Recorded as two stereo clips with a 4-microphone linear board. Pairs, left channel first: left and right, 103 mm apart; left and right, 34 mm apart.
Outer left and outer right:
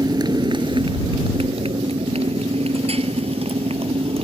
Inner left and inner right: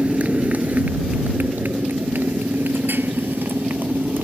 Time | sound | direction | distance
0.0 | a motorcycle | 40° right (ahead or behind) | ?